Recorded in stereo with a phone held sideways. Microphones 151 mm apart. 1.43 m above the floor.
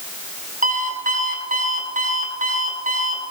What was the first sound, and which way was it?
An alarm clock, 65° right (ahead or behind).